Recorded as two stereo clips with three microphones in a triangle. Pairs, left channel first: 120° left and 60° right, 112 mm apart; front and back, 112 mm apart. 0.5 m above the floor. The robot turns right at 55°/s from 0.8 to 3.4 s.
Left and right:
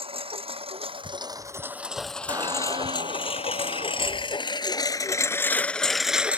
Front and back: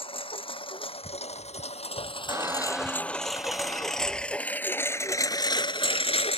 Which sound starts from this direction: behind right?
A squeak, at 2.3 s.